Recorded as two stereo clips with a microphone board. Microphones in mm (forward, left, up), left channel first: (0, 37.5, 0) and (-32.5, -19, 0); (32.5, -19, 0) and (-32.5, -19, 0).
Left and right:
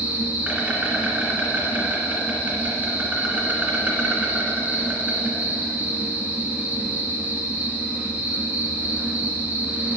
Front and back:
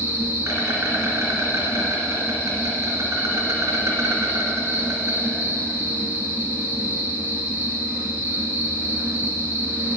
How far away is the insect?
About 1.9 m.